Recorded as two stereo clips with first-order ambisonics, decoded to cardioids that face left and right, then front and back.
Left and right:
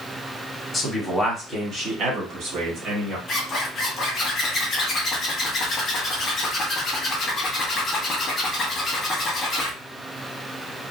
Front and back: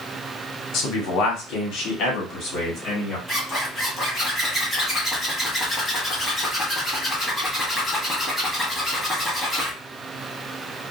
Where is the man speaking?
5° left, 1.1 m; by 3.2 s 60° right, 1.9 m.